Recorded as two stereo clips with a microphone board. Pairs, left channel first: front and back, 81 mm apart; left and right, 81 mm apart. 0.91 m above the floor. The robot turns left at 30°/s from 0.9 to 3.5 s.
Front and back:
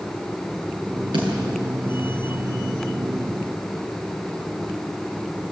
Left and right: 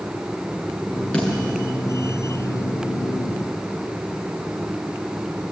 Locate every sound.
1.1 s a snare drum: 165° left, 7 m; by 1.3 s 160° left, 7 m